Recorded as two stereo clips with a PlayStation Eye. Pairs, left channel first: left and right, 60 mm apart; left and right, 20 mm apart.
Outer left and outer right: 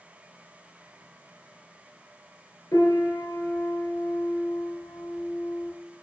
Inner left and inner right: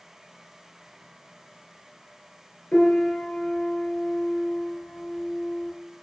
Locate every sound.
2.7 s a piano: 85° left, 2 m